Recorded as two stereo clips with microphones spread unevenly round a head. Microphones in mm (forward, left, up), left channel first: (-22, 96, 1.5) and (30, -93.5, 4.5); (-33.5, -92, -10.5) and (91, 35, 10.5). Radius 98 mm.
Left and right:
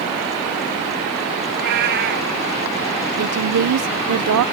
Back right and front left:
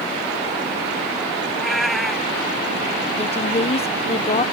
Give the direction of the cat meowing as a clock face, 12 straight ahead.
1 o'clock.